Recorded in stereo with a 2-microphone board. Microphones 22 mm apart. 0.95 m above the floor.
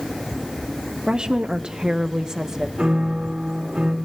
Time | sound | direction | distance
1.1 | a woman speaking | 30° right (ahead or behind) | 0.7 m
2.8 | a piano | 45° right (ahead or behind) | 1.7 m